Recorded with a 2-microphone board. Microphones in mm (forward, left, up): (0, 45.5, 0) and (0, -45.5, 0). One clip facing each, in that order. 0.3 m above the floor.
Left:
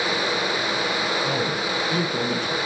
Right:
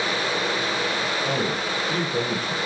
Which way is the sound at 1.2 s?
50° right (ahead or behind).